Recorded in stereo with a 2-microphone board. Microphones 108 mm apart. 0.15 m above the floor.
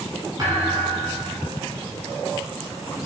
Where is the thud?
35° right (ahead or behind), 9.5 m.